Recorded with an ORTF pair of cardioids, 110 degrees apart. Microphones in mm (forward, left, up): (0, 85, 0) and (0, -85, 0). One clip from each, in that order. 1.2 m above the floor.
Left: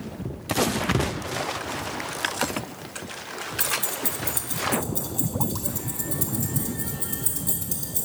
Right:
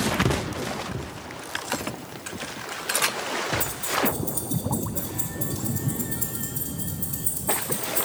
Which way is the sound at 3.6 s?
40° left.